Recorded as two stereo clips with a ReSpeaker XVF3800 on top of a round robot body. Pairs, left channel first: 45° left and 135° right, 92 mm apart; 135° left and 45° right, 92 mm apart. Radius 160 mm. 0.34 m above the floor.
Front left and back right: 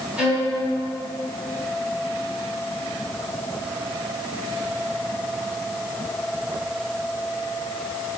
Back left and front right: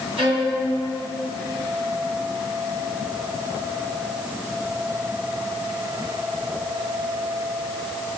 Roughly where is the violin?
Ahead right.